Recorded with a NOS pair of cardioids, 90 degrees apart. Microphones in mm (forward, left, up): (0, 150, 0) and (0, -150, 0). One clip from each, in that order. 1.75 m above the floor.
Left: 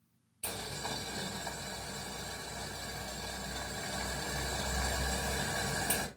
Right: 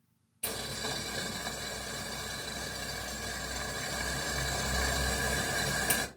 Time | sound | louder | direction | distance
0.4 | boiling | right 3 dB | 45° right | 3 m